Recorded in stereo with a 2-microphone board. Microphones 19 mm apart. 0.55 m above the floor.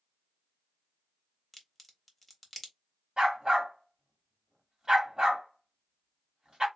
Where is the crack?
5° left (ahead or behind), 1.1 m.